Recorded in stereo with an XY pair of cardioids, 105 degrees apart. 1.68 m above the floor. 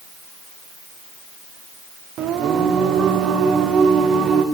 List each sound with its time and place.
2.2 s singing: 70° right, 0.9 m